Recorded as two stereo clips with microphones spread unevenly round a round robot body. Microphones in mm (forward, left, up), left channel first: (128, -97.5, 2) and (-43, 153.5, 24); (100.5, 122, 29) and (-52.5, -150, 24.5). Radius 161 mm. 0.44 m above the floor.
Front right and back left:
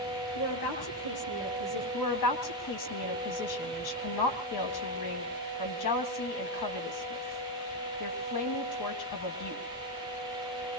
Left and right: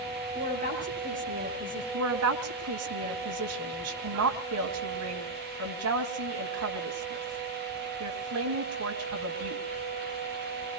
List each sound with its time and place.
0.3 s a woman speaking: 55° right, 9 m
1.9 s a woman speaking: 80° right, 3.5 m